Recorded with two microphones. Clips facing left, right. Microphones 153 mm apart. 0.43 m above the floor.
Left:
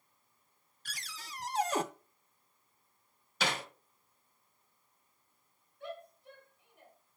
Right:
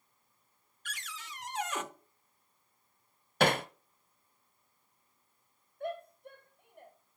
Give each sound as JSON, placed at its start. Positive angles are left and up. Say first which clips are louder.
{"t": 0.8, "sound": "a cupboard door", "louder": "right 3 dB", "side_deg": 35, "distance_m": 0.6}
{"t": 3.4, "sound": "hammering", "louder": "right 8 dB", "side_deg": -55, "distance_m": 0.6}
{"t": 5.8, "sound": "a shout", "louder": "right 6 dB", "side_deg": -55, "distance_m": 2.0}